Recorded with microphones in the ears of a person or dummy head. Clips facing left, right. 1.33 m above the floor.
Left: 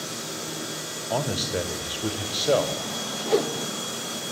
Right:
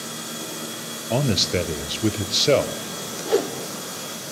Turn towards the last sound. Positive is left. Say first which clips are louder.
# right 2 dB
turn(degrees=-5)  # may be behind; listen again after turning